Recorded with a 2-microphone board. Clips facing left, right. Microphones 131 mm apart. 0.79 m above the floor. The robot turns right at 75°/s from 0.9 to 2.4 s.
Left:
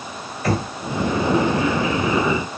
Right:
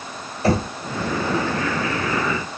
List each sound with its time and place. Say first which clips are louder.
0.4 s knocking: right 3 dB; 30° right (ahead or behind), 2 m